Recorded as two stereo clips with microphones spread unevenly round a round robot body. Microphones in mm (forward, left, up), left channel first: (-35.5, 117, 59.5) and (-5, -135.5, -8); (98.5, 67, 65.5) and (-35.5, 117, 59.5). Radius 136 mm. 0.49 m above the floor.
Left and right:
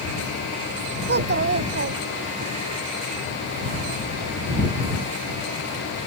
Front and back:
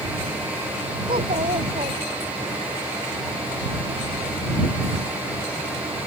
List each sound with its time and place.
1.1 s a child speaking: 135° right; by 2.5 s 130° right